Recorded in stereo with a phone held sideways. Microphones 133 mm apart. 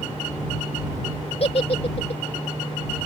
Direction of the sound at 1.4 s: 50° left (ahead or behind).